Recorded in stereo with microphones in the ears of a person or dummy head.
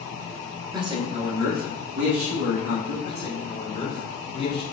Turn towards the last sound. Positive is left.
turn(degrees=25)  # may be behind; listen again after turning